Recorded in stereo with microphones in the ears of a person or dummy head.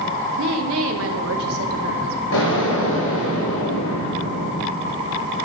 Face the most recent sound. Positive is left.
turn(degrees=70)  # may be behind; listen again after turning